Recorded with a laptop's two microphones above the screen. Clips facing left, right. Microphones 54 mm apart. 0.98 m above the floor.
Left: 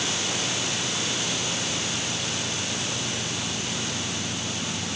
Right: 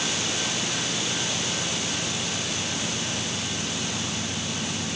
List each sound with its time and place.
Only background noise.